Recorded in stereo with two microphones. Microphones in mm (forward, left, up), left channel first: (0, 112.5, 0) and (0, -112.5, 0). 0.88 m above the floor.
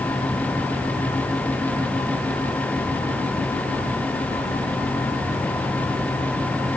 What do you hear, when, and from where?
Only background noise.